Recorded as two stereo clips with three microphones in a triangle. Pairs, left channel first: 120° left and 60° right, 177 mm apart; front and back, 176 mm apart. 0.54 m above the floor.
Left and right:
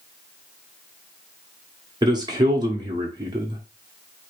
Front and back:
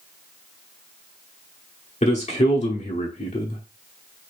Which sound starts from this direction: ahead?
A man speaking, at 2.0 s.